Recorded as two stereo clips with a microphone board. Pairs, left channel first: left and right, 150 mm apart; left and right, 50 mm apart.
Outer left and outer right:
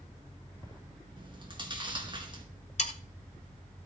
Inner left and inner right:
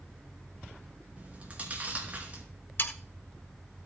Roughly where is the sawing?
Left.